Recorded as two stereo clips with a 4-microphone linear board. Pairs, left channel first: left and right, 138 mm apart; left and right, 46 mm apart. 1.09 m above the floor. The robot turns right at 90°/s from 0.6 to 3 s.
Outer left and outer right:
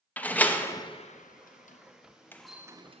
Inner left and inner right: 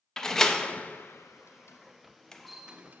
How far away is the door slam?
About 0.6 m.